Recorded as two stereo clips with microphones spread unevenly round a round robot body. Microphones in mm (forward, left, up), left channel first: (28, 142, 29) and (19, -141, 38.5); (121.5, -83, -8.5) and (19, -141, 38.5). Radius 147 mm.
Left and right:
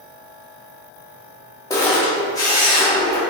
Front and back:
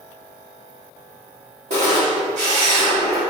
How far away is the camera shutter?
About 0.5 m.